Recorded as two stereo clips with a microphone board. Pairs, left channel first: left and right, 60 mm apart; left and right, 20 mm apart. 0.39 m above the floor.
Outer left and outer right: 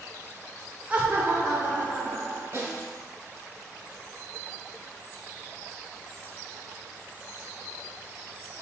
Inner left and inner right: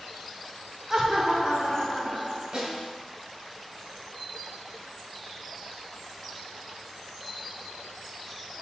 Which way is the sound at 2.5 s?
55° right (ahead or behind).